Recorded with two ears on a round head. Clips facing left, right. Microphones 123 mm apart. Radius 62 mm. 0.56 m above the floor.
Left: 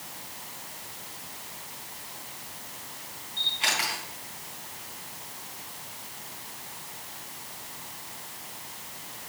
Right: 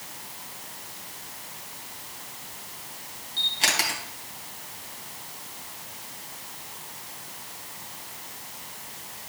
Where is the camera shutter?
45° right (ahead or behind), 3.5 m.